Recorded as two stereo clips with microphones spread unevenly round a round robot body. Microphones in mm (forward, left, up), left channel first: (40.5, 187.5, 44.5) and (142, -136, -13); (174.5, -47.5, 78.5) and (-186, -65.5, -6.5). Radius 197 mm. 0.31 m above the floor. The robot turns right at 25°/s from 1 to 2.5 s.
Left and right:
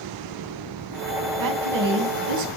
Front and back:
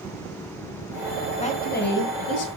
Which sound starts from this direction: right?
A woman speaking, at 1.4 s.